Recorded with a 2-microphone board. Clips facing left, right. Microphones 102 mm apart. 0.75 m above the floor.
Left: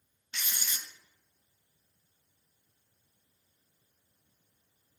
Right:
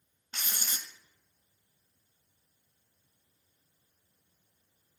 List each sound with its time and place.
0.3 s writing: 40° right (ahead or behind), 0.7 m